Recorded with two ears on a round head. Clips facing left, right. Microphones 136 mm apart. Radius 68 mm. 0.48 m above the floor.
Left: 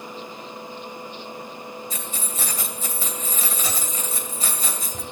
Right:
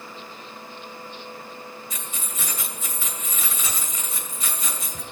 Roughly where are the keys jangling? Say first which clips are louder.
Left 4 dB; left.